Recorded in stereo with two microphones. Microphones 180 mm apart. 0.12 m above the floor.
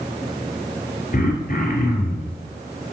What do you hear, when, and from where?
1.1 s throat clearing: 55° left (ahead or behind), 2.5 m